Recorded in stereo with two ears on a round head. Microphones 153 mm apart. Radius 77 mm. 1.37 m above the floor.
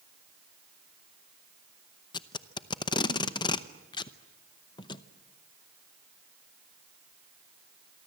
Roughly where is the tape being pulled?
Left.